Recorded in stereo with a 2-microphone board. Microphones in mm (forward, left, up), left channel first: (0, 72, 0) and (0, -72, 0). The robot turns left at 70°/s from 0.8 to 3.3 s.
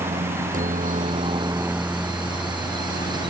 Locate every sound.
0.0 s a helicopter: 70° right (ahead or behind); by 3.3 s 70° left (ahead or behind)